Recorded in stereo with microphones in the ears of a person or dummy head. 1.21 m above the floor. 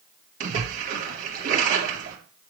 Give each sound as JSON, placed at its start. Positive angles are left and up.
{"t": 0.4, "sound": "a splash", "side_deg": -45, "distance_m": 2.0}